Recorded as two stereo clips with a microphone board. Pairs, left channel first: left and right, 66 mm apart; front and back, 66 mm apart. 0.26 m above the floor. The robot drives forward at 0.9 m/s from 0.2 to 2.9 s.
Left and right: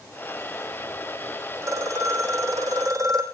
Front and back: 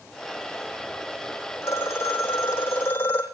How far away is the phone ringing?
About 7.5 m.